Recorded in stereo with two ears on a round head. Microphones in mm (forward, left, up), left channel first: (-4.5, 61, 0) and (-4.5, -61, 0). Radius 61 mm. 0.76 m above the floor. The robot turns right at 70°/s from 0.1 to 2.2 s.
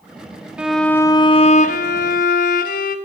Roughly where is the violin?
Ahead.